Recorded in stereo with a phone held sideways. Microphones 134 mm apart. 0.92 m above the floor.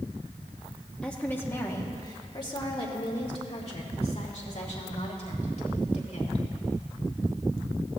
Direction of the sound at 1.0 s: 5° left (ahead or behind).